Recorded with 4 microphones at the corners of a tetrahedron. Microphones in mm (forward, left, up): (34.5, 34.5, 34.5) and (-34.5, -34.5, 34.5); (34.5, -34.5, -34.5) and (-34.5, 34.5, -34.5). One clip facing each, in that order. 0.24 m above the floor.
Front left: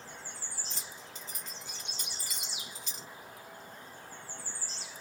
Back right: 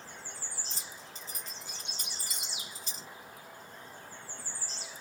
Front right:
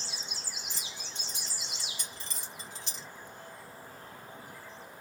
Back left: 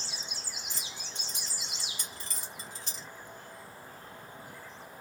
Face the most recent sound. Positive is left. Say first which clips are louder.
# even, even
turn(degrees=175)